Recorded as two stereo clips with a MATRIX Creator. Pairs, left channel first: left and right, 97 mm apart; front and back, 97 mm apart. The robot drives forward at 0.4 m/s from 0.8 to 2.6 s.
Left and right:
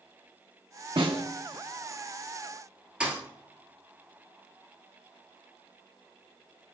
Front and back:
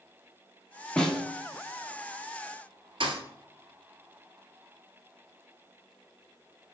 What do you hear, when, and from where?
1.0 s a snare drum: 80° right, 1.2 m; by 1.2 s 85° right, 1.2 m
3.0 s a thud: 165° right, 1.4 m